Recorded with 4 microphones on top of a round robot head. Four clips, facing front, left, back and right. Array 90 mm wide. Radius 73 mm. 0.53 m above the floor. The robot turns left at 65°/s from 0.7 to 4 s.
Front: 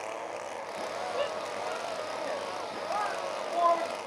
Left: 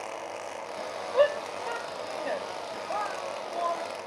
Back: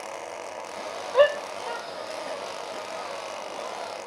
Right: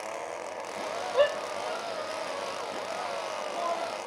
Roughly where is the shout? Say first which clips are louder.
Left 2 dB, back 16 dB; behind.